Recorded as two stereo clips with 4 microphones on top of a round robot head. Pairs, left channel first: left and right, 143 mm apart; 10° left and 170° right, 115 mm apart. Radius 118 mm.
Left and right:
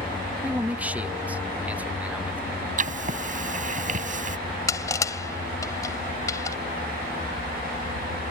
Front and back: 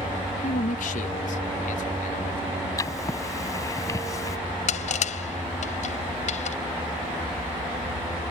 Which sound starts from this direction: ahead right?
Writing, at 2.8 s.